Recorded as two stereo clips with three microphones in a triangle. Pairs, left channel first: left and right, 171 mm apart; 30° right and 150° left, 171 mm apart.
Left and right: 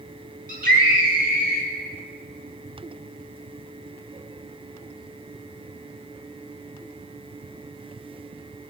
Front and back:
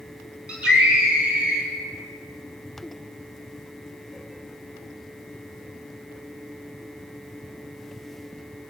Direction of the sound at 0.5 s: 125° right.